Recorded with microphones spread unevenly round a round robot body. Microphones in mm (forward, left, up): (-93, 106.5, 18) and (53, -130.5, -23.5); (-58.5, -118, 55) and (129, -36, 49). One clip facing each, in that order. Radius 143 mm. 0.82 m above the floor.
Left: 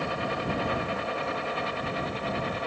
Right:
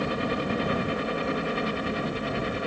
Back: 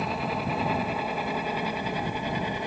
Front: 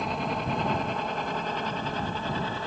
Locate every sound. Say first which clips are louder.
0.0 s a helicopter: right 4 dB, back 1 dB; 70° right; by 2.7 s 95° right